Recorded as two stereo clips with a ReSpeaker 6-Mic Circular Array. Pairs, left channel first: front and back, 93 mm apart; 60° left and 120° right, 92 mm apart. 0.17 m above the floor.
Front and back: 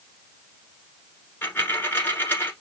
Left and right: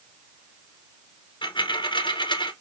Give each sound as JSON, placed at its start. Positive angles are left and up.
{"t": 1.4, "sound": "a dropped coin", "azimuth_deg": 65, "distance_m": 1.1}